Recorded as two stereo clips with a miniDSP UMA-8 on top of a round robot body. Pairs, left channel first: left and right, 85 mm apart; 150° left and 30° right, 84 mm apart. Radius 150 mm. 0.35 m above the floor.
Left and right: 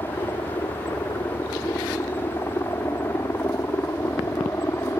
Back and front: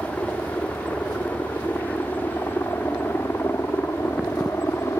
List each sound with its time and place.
0.0 s a helicopter: 105° left; by 5.0 s 120° left